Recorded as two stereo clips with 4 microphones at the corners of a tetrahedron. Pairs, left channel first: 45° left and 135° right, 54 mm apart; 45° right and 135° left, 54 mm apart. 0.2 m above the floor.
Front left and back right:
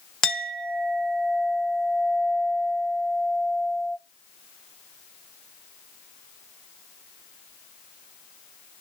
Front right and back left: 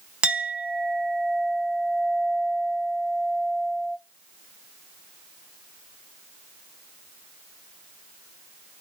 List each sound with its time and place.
0.2 s a clink: 105° left, 0.6 m